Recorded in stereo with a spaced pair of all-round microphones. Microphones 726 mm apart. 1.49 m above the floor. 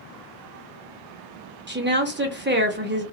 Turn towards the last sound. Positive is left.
turn(degrees=-15)  # may be behind; listen again after turning